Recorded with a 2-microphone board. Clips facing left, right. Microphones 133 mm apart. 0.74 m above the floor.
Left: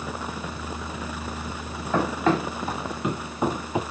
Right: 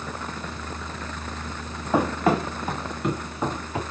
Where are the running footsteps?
15° right (ahead or behind), 1.3 m; by 3.8 s 20° left (ahead or behind), 0.8 m.